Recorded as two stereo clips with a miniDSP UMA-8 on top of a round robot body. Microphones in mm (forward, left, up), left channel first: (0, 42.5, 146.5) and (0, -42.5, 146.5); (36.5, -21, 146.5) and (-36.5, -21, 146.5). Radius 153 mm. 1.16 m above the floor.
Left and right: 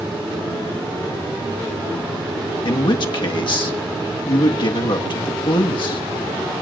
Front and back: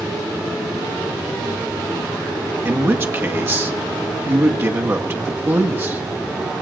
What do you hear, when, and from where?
2.6 s a man speaking: 120° left, 1.6 m